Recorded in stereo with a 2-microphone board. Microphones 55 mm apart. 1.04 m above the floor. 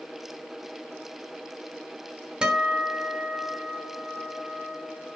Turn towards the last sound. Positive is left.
turn(degrees=-20)  # may be behind; listen again after turning